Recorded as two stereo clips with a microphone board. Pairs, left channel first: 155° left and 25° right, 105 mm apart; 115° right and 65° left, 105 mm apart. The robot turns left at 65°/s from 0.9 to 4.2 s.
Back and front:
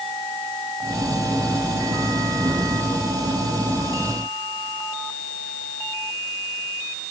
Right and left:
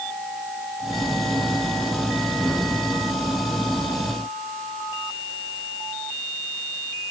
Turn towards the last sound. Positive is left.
No sound to turn to.